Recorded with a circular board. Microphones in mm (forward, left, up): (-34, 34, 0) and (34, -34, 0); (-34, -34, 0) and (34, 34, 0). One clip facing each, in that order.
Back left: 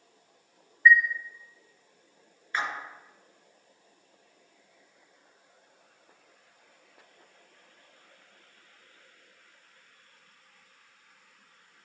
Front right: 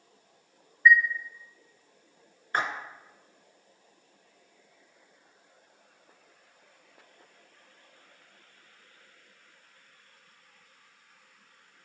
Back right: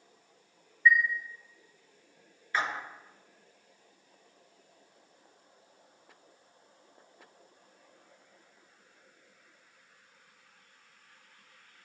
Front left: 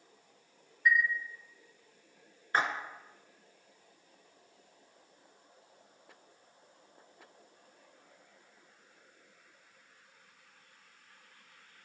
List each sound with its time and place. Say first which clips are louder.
0.8 s a chime: even, back right 4 dB; 35° left, 0.7 m
2.5 s a splash: front right 2 dB, front left 1 dB; 5° right, 0.7 m